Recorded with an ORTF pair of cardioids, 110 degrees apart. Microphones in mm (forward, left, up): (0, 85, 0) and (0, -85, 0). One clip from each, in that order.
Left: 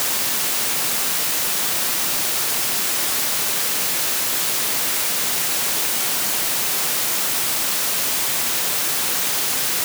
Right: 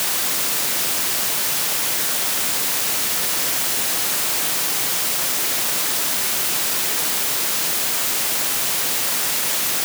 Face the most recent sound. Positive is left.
No sound to turn to.